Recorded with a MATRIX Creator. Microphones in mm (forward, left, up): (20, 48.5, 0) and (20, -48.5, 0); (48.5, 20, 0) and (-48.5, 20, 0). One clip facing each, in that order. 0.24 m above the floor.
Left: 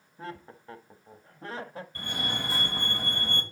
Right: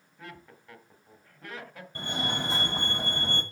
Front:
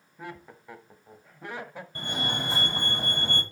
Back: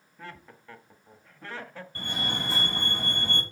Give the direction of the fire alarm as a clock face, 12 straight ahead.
2 o'clock.